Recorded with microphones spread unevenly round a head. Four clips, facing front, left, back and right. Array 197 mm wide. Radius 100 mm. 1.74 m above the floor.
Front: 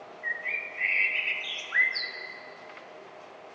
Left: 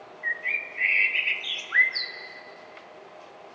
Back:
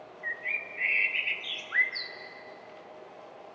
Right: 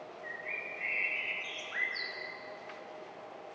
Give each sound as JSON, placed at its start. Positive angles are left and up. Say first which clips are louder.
{"t": 0.2, "sound": "a bird", "louder": "left 12 dB, front 2 dB", "azimuth_deg": 100, "distance_m": 1.6}